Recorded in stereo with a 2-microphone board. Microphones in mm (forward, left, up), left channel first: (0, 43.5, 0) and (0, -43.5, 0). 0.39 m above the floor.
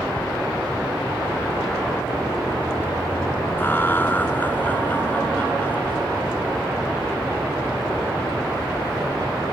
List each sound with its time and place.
3.6 s laughter: 25° left (ahead or behind); by 6.1 s 20° left (ahead or behind)